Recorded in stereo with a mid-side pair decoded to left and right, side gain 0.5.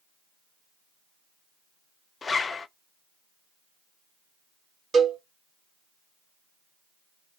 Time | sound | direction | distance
2.2 | a zipper | 30° left | 0.6 m
4.9 | a cowbell | 40° right | 2.0 m